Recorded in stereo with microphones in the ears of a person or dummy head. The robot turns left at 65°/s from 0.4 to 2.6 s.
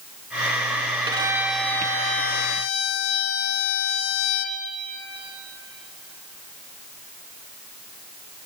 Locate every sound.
1.1 s a violin: 155° right, 1.2 m; by 4.6 s 105° left, 1.2 m